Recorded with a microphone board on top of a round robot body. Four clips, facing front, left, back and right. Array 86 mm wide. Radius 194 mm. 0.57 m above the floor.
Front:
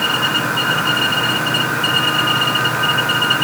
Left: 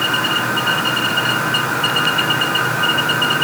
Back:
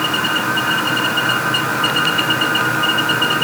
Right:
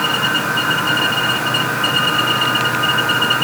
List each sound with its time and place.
Only background noise.